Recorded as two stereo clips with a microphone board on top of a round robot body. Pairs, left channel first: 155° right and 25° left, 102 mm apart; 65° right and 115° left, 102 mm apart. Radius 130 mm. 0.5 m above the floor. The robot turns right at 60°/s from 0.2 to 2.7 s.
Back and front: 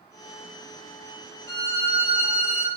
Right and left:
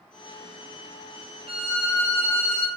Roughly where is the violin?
Behind left.